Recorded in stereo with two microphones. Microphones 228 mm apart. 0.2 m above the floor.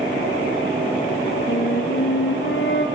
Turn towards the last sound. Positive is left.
turn(degrees=65)  # may be behind; listen again after turning